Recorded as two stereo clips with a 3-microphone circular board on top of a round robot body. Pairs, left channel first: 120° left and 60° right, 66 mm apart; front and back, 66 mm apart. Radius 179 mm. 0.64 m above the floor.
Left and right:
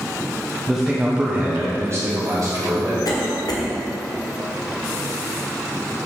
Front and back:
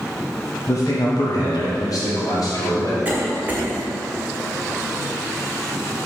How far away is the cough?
About 1.7 m.